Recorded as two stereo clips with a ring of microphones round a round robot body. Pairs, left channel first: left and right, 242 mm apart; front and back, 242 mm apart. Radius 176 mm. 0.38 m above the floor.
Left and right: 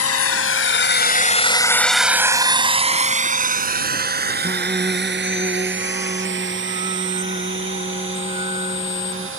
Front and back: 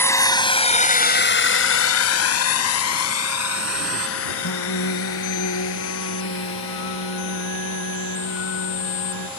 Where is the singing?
20° right.